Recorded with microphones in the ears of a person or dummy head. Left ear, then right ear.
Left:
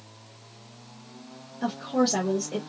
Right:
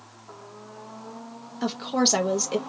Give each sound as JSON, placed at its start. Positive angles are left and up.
{"t": 1.6, "sound": "a woman speaking", "side_deg": -45, "distance_m": 0.6}